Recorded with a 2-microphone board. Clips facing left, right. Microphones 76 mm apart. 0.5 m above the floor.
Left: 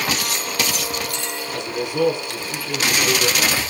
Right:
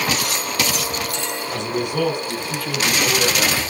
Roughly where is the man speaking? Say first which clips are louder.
Right 1 dB; right.